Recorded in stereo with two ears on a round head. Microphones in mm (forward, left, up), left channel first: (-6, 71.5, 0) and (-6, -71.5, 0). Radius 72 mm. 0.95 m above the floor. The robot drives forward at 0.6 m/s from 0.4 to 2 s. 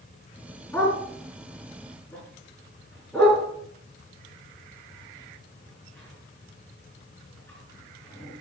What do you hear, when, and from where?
0.7 s a dog barking: 15° left (ahead or behind), 4.5 m